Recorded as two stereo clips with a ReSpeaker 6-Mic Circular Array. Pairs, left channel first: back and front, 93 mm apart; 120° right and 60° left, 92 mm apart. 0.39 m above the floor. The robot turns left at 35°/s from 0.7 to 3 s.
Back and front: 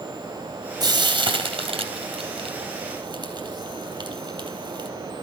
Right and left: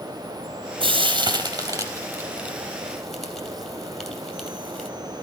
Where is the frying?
45° left, 2.5 m; by 4.9 s 30° right, 2.5 m.